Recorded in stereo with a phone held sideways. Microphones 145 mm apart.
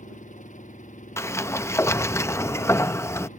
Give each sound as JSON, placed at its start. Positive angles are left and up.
{"t": 0.0, "sound": "an engine running", "side_deg": 65}
{"t": 1.2, "sound": "a sliding door", "side_deg": 20}